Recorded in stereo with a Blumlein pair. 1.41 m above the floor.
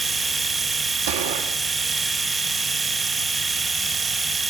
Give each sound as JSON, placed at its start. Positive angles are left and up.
{"t": 0.0, "sound": "a machine running", "azimuth_deg": -15, "distance_m": 1.0}
{"t": 1.1, "sound": "a gunshot", "azimuth_deg": -60, "distance_m": 2.5}